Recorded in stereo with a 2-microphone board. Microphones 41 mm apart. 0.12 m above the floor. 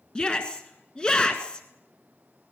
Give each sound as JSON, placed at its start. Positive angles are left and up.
{"t": 0.1, "sound": "a shout", "side_deg": 25, "distance_m": 1.3}